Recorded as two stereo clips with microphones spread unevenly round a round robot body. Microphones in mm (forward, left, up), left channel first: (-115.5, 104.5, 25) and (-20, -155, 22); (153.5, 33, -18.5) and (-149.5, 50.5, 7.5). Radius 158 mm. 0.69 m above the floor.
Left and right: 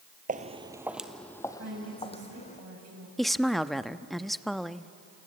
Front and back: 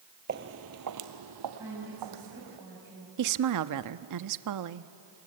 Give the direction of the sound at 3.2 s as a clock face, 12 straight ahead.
5 o'clock.